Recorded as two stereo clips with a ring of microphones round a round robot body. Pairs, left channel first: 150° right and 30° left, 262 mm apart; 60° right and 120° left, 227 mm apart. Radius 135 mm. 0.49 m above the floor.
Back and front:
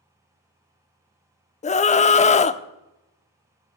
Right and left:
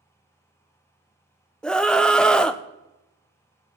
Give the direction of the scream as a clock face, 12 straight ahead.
5 o'clock.